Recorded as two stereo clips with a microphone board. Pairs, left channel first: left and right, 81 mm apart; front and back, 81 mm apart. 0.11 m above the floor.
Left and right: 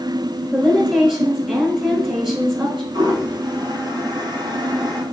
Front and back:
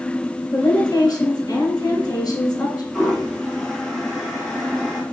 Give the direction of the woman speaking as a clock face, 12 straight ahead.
12 o'clock.